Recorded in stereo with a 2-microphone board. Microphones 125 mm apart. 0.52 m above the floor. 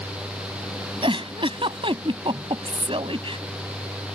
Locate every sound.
1.0 s a giggle: 45° right (ahead or behind)